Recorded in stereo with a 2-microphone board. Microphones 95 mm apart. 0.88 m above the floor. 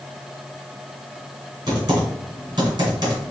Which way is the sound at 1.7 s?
45° right (ahead or behind).